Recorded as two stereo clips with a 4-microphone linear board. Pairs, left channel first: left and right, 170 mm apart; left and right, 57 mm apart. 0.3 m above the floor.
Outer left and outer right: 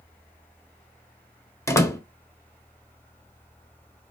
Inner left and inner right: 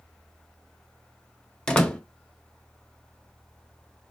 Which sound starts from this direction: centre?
A door slam, at 1.7 s.